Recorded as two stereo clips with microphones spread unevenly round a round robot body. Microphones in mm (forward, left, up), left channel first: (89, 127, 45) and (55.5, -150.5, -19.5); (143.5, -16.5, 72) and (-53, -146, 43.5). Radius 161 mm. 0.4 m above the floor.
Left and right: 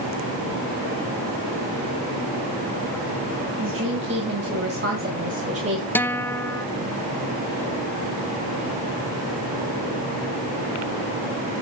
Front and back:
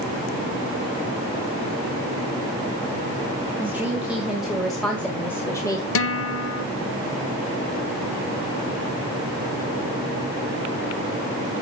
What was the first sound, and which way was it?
A woman speaking, 70° right.